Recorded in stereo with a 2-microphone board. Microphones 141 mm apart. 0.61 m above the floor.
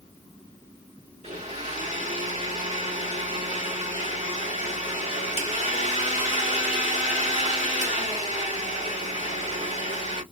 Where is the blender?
50° right (ahead or behind), 1.5 m.